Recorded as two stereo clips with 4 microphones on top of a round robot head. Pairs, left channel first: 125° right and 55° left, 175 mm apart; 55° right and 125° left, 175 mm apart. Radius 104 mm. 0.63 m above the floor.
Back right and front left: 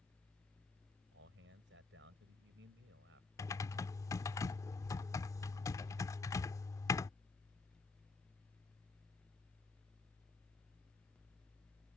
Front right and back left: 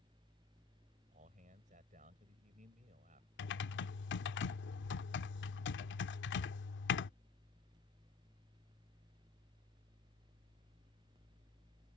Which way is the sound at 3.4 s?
50° right.